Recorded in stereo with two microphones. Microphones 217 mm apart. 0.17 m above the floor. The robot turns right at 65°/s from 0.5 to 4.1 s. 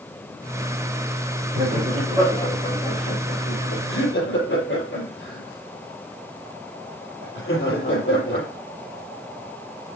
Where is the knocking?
I don't hear knocking.